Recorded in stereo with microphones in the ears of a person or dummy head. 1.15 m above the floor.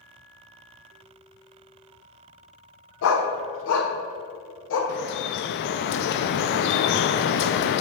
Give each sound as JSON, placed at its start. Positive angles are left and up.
{"t": 3.0, "sound": "a dog barking", "side_deg": 65, "distance_m": 1.3}
{"t": 4.9, "sound": "dripping", "side_deg": 60, "distance_m": 0.6}